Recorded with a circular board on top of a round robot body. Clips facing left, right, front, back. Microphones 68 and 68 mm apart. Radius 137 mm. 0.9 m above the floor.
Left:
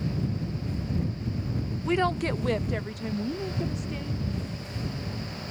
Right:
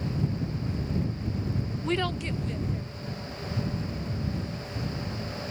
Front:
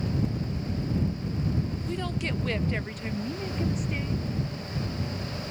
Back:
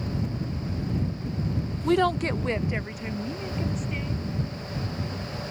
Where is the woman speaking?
Straight behind; by 4.2 s 85° left.